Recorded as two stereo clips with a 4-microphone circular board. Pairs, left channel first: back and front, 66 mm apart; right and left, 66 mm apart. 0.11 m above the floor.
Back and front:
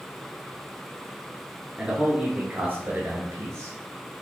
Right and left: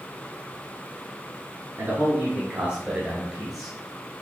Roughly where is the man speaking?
Left.